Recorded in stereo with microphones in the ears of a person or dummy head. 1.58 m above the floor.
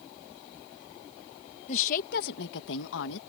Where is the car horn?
I don't hear a car horn.